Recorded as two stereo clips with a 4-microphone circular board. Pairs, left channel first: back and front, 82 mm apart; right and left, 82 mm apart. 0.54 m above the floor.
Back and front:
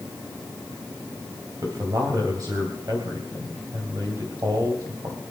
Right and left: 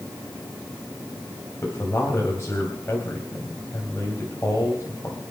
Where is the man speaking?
35° right, 3.5 m.